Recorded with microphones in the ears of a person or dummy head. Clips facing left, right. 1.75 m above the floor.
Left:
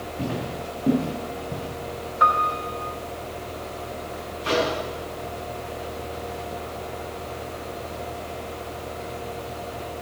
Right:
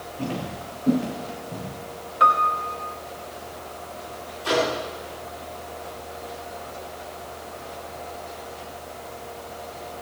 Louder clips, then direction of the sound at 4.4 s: Right 1 dB; 25° left (ahead or behind).